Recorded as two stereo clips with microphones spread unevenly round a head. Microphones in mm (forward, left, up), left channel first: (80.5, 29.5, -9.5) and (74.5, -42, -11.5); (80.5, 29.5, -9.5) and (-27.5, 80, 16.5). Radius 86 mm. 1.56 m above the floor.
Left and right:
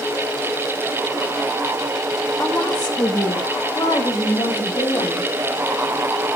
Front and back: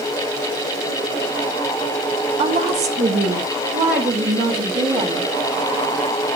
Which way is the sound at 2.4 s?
165° left.